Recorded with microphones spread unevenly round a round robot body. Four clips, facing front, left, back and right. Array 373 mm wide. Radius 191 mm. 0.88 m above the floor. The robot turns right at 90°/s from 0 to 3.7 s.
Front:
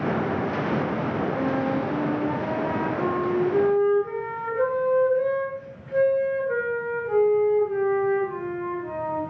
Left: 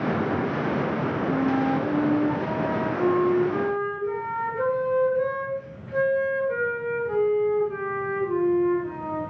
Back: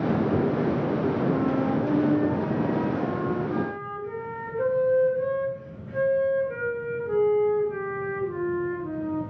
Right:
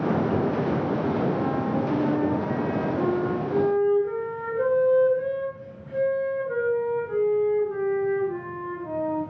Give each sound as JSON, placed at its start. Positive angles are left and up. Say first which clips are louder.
{"t": 1.2, "sound": "a flute", "louder": "left 2 dB, back 1 dB", "azimuth_deg": 130, "distance_m": 4.5}